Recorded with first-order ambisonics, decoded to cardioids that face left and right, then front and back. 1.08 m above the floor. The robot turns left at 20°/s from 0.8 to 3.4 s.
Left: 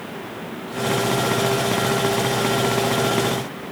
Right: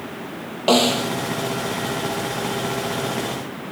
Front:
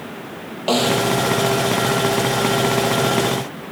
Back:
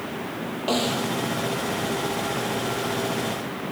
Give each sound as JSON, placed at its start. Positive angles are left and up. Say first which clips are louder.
{"t": 0.7, "sound": "a snare drum", "louder": "right 5 dB, front 8 dB", "azimuth_deg": -70}